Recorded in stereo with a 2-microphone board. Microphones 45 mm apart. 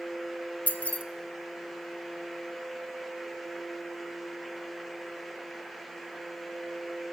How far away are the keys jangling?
About 0.9 m.